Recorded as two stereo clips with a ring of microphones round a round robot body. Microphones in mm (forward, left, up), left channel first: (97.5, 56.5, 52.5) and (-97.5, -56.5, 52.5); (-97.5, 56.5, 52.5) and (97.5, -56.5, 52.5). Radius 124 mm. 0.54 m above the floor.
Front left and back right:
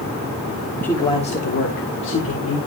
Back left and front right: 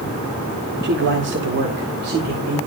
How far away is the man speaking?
About 1.3 m.